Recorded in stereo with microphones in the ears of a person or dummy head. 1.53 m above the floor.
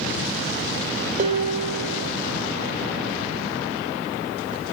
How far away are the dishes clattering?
About 3.5 m.